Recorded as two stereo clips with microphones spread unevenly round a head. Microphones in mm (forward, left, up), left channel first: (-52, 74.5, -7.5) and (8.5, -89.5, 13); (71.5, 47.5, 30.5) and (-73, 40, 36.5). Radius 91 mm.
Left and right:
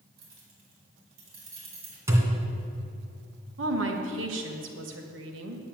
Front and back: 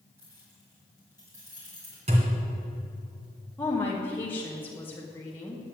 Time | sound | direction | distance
0.2 | keys jangling | 100° right | 3.5 m
2.1 | a thud | 135° right | 2.5 m
3.6 | a woman speaking | 75° right | 1.7 m